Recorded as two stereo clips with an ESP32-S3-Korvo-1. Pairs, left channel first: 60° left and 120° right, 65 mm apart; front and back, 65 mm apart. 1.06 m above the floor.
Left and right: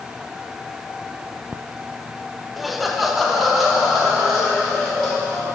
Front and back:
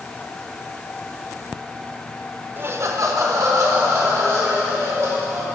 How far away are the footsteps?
I don't hear footsteps.